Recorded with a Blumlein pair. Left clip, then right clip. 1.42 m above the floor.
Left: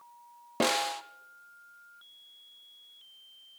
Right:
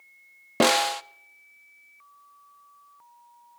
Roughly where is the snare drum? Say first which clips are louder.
Right 7 dB; right.